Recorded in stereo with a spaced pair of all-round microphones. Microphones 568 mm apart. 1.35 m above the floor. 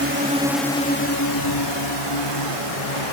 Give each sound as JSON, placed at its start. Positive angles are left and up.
{"t": 0.0, "sound": "a drone", "side_deg": -25}